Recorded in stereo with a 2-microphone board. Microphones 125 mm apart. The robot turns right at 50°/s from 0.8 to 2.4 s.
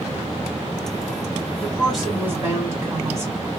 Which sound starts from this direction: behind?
A woman speaking, at 1.6 s.